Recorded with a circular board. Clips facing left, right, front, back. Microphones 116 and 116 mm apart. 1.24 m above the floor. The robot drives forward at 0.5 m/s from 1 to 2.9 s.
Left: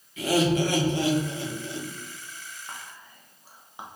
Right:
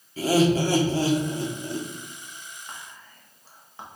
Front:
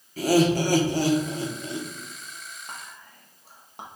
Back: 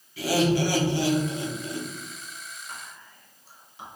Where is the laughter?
40° right, 1.0 m; by 1.9 s 65° right, 0.8 m.